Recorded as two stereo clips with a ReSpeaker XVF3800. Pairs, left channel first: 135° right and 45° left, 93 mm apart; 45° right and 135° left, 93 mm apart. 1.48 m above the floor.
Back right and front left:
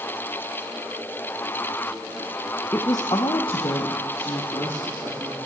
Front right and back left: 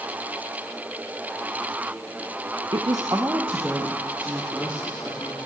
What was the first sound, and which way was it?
A woman speaking, 160° left.